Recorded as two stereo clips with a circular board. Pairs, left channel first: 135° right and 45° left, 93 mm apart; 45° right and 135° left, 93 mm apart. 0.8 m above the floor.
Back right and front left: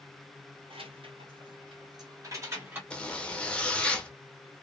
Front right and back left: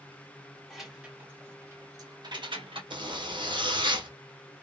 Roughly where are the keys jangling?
Ahead left.